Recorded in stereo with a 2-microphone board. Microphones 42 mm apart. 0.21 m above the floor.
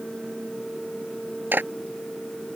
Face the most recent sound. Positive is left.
turn(degrees=-55)  # may be behind; listen again after turning